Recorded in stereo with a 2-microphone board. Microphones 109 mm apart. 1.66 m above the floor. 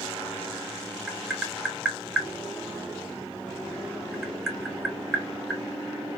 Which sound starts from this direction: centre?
Tapping, at 1.1 s.